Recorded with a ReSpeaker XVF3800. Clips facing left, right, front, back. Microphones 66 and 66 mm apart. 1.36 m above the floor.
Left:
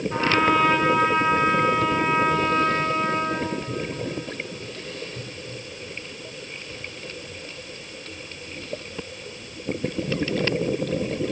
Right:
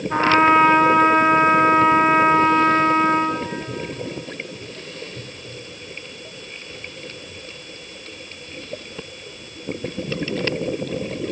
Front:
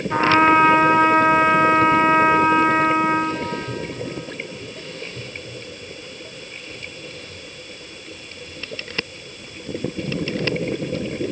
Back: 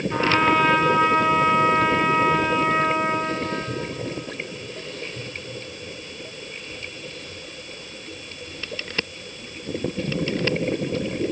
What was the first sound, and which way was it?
A trumpet, 50° right.